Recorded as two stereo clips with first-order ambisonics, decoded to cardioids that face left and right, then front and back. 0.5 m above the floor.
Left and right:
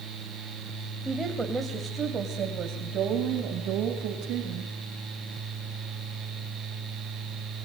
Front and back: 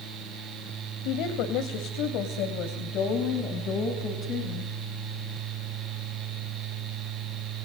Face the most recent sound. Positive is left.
turn(degrees=-60)